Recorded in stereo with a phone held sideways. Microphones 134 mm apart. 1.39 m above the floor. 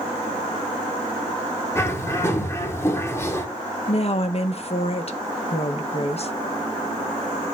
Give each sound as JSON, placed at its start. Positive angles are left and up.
{"t": 1.8, "sound": "a bird", "side_deg": 20, "distance_m": 1.6}
{"t": 3.9, "sound": "a woman speaking", "side_deg": 50, "distance_m": 1.4}